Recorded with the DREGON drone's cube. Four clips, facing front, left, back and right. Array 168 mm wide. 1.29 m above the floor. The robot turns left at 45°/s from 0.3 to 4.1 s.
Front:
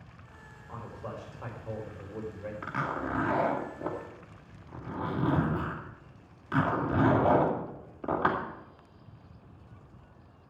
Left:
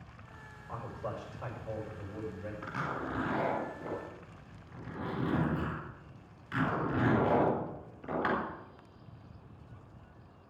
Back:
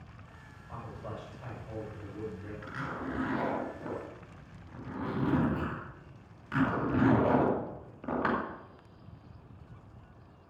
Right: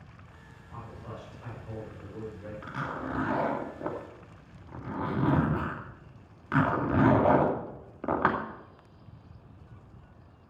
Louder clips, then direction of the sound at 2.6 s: Right 2 dB, front 5 dB; 10° right.